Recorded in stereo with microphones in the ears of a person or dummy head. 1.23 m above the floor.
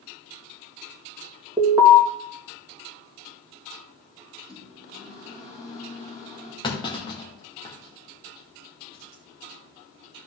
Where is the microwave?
5° right (ahead or behind), 6.5 m.